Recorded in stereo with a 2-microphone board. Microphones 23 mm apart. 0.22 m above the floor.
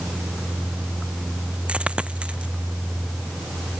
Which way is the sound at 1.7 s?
55° right (ahead or behind).